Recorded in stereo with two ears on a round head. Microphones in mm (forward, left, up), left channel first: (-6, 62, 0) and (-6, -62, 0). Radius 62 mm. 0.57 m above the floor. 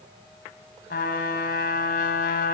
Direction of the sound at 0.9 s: 75° left (ahead or behind).